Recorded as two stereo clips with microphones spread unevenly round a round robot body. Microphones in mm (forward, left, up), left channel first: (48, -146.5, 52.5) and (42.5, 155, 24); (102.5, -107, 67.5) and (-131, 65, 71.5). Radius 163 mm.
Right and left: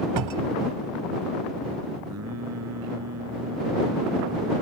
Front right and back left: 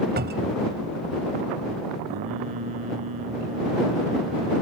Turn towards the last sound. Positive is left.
turn(degrees=135)